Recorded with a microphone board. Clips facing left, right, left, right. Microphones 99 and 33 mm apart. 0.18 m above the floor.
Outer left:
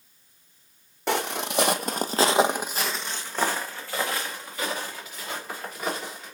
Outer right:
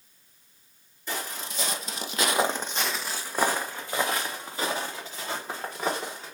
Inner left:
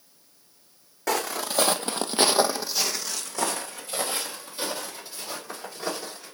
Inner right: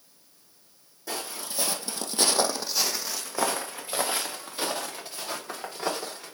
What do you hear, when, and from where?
1.1 s footsteps: 80° left, 0.7 m; by 6.3 s 30° right (ahead or behind), 2.5 m